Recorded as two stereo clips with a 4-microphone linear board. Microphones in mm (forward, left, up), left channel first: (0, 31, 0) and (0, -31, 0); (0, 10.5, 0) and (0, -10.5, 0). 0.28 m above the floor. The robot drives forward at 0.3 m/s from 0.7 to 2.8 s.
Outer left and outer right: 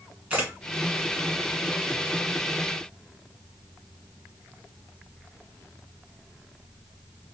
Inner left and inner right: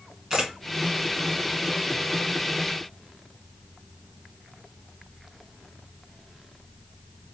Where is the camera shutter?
25° right (ahead or behind), 1.6 m.